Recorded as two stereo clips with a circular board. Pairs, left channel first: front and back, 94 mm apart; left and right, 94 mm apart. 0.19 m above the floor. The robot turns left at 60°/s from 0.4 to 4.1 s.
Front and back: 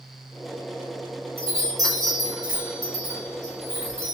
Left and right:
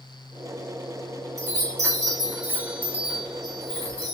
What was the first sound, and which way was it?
A chime, 70° right.